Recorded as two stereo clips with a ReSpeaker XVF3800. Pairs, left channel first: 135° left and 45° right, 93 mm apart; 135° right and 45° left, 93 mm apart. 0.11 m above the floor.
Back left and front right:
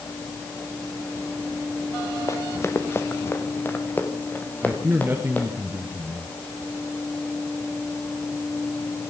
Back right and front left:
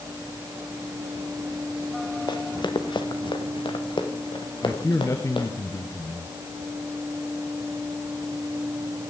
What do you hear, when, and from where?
2.3 s running footsteps: 170° right, 2 m; by 5.5 s 155° right, 5 m
4.6 s a man speaking: 100° right, 2 m